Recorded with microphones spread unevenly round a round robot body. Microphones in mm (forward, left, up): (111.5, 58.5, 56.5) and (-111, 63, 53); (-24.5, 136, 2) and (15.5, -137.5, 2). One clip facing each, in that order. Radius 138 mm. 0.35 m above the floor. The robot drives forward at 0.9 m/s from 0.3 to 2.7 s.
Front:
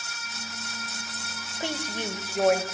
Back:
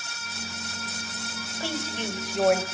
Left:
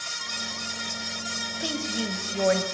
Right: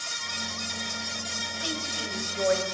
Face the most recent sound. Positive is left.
turn(degrees=95)